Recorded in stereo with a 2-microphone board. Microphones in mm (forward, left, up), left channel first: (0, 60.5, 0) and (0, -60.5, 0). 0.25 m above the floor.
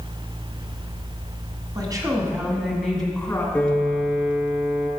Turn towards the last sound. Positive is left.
turn(degrees=10)  # may be behind; listen again after turning